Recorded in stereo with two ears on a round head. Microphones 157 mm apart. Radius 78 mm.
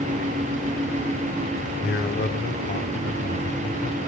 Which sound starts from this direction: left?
A man speaking, at 1.8 s.